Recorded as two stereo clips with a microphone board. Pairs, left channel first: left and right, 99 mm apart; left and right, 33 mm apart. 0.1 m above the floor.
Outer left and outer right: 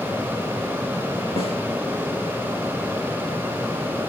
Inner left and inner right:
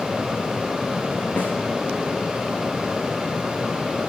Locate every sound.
1.4 s a snare drum: 75° left (ahead or behind), 6 m